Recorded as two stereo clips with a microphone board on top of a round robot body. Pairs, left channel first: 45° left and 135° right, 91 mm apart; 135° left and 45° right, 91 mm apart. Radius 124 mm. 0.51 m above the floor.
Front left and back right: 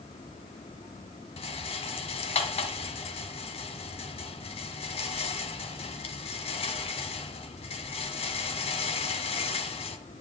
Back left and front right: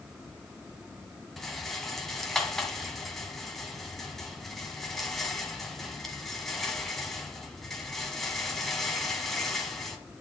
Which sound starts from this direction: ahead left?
A rattle, at 1.4 s.